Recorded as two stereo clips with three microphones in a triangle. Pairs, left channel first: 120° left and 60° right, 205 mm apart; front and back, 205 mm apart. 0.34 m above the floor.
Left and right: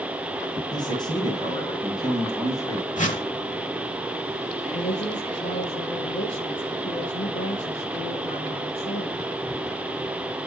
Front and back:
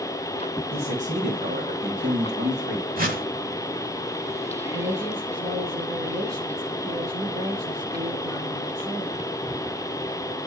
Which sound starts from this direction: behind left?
A whoosh, at 3.0 s.